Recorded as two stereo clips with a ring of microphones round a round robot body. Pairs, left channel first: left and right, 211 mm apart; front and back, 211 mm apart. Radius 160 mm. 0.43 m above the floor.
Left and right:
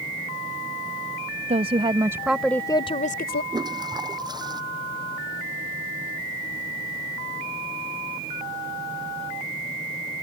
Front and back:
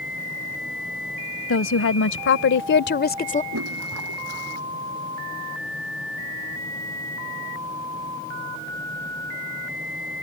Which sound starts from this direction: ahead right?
A woman speaking, at 1.5 s.